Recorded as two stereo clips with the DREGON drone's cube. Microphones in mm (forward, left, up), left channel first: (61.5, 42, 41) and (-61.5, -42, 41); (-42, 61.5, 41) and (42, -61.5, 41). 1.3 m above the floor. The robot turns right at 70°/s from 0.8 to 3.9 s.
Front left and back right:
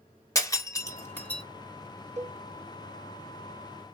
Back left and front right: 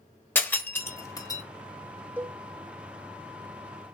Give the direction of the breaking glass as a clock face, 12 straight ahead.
10 o'clock.